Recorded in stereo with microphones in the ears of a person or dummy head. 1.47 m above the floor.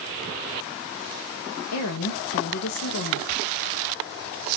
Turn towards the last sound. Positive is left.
turn(degrees=90)